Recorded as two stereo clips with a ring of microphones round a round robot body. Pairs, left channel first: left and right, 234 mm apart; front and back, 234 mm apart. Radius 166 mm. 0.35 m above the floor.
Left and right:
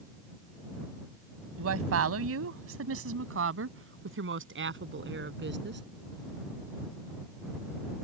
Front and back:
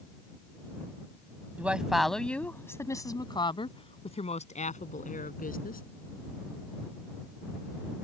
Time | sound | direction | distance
1.6 | a woman speaking | 95° right | ?